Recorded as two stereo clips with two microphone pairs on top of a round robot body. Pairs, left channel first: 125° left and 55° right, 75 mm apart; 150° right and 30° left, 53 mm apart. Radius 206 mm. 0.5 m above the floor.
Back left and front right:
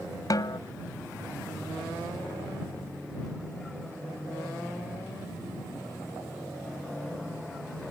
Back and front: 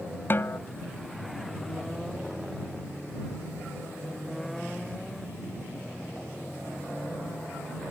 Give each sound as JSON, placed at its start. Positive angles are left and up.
{"t": 0.3, "sound": "a snare drum", "azimuth_deg": 160}